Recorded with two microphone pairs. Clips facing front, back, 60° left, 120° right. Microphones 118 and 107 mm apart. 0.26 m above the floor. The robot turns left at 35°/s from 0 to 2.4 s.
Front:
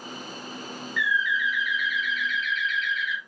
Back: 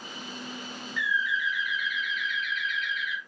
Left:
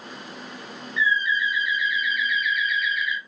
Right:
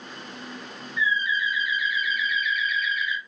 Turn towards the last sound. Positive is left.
turn(degrees=-165)